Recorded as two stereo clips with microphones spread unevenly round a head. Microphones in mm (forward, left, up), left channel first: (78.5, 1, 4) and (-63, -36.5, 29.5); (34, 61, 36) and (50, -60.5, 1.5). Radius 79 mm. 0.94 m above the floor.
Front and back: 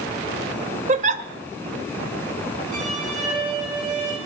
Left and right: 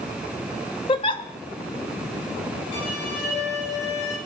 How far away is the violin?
About 7 m.